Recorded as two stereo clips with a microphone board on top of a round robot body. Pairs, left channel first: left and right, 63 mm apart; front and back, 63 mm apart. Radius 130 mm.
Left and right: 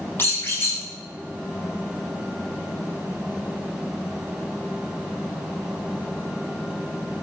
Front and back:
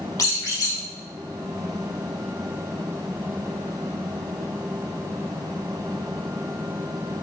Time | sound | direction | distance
0.2 | a squeak | 35° left | 0.6 m